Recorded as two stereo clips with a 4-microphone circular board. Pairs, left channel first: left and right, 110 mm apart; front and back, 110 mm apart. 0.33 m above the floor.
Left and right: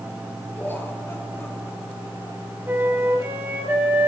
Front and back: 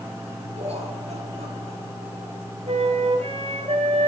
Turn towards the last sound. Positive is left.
turn(degrees=-160)